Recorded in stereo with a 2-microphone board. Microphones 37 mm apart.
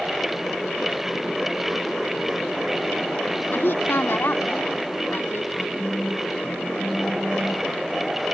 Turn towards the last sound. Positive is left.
turn(degrees=-25)  # may be behind; listen again after turning